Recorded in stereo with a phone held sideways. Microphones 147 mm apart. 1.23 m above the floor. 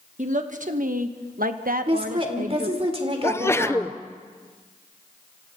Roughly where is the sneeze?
Centre.